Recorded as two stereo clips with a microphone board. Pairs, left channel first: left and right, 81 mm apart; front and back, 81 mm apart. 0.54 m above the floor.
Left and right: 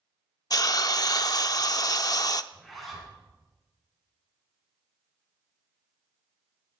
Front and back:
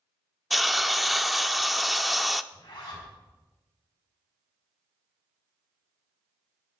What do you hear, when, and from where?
0.5 s a hiss: 90° left, 0.6 m
2.5 s a zipper: straight ahead, 6 m